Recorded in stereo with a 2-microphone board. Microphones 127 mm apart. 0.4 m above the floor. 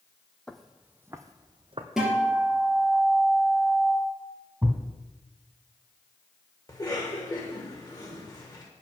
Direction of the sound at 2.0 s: 5° right (ahead or behind).